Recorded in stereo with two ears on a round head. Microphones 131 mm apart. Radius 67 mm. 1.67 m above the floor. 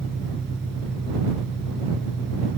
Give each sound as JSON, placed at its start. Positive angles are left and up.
{"t": 0.0, "sound": "an engine running", "side_deg": 0}